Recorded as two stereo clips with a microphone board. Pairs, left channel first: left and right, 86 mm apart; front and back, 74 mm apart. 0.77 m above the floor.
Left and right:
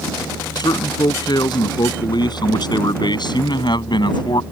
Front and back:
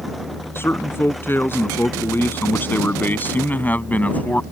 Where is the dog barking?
No dog barking in this recording.